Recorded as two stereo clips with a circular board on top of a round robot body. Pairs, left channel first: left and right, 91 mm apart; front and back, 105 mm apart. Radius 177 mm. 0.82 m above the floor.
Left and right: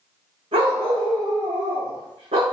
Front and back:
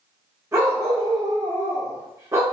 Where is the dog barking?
115° right, 0.5 m.